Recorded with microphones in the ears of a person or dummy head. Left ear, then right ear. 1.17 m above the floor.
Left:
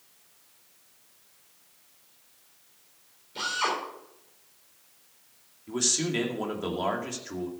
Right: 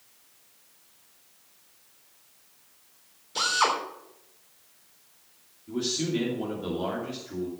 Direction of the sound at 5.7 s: 60° left (ahead or behind).